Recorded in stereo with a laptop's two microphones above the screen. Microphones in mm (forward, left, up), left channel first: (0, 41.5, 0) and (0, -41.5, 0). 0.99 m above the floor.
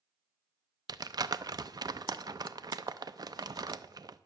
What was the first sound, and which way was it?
Crumpling, 55° right (ahead or behind).